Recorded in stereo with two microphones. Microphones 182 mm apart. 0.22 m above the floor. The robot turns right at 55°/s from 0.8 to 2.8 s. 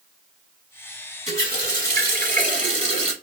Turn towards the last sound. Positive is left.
turn(degrees=-50)